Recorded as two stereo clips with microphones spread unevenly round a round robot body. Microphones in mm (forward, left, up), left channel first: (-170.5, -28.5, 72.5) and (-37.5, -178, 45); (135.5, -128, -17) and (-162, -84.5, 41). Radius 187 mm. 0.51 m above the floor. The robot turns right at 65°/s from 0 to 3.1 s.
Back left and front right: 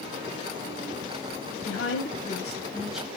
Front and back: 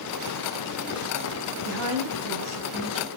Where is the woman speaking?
140° left, 3 m; by 3.1 s 130° right, 3 m.